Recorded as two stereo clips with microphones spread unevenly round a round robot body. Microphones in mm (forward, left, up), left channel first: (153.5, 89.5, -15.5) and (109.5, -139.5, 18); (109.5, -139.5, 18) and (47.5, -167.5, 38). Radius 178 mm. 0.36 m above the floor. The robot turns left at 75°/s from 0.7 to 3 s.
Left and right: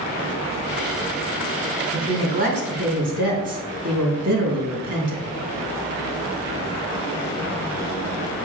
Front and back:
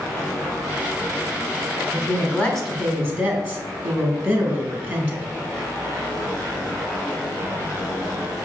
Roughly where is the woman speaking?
Ahead.